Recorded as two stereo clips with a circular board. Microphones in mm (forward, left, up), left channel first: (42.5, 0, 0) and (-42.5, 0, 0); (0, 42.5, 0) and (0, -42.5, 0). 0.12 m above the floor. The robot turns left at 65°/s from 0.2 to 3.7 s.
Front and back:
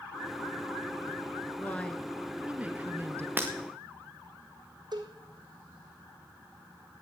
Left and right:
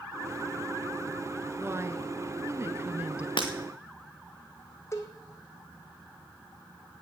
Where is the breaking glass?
110° left, 2.5 m; by 3.5 s 105° left, 2.5 m.